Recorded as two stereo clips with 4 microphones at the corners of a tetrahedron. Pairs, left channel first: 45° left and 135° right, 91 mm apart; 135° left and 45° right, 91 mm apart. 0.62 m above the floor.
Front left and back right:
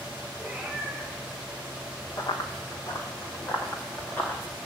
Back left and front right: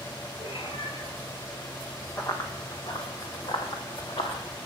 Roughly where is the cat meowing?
Behind left.